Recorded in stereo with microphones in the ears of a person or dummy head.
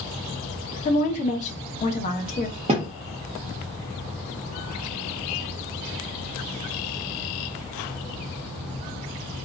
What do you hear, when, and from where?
0.8 s a woman speaking: 35° left (ahead or behind), 0.7 m
2.7 s a thud: 30° right (ahead or behind), 0.7 m